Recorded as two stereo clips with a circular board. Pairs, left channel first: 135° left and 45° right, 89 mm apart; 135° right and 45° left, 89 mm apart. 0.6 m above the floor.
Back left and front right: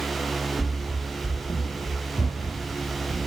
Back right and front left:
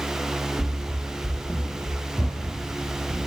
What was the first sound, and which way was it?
Running footsteps, 130° left.